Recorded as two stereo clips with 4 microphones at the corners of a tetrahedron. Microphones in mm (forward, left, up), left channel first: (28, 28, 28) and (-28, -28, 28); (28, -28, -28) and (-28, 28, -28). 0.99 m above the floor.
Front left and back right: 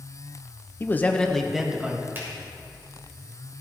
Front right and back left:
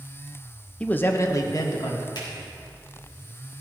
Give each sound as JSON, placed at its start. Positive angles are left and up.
{"t": 0.8, "sound": "a man speaking", "azimuth_deg": 15, "distance_m": 0.9}
{"t": 2.1, "sound": "a finger snap", "azimuth_deg": -70, "distance_m": 4.0}